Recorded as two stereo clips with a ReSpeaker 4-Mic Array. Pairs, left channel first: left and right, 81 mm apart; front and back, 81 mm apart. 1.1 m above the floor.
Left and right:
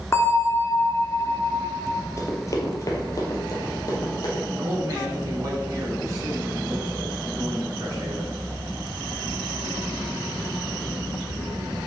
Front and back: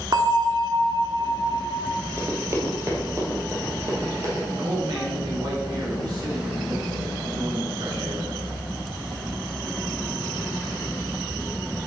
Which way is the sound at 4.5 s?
140° right.